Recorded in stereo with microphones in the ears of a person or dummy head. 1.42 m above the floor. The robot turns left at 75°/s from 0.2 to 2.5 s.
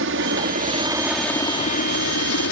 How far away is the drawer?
No drawer in this recording.